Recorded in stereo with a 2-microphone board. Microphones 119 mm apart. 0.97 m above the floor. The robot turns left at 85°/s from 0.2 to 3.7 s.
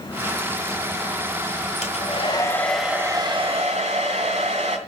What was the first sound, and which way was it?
A hair dryer, 80° left.